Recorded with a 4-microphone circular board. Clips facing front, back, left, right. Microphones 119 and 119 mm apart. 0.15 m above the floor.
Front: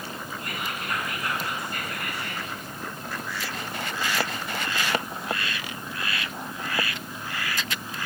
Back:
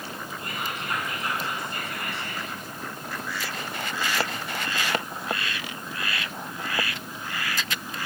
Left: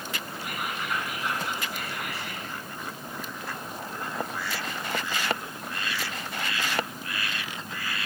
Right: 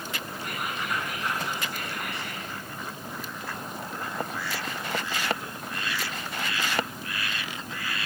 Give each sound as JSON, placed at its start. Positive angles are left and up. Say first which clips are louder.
{"t": 0.4, "sound": "whispering", "louder": "back 1 dB, even", "azimuth_deg": 175, "distance_m": 1.2}